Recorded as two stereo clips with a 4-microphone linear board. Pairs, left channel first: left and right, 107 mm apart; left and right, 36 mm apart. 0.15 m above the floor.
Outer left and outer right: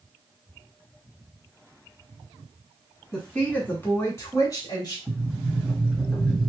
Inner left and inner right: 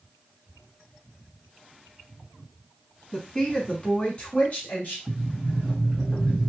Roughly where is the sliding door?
Centre.